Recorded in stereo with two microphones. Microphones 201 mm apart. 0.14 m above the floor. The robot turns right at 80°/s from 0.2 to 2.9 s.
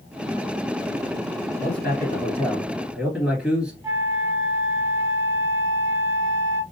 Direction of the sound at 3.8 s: 15° right (ahead or behind).